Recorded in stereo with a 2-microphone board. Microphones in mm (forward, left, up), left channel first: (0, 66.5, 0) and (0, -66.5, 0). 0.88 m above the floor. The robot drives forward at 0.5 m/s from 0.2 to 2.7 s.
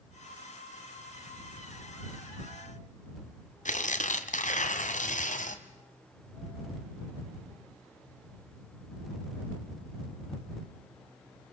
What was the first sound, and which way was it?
Tearing paper, 70° left (ahead or behind).